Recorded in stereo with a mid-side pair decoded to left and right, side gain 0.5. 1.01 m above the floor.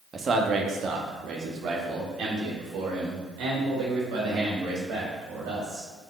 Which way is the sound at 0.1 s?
35° right.